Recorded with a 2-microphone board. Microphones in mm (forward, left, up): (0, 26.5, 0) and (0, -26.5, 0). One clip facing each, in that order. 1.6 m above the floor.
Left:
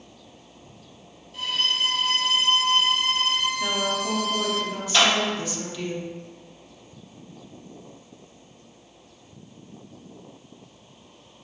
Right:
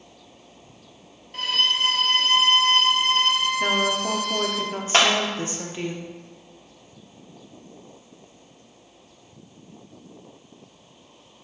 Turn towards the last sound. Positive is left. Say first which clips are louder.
# right 1 dB
turn(degrees=-60)  # may be behind; listen again after turning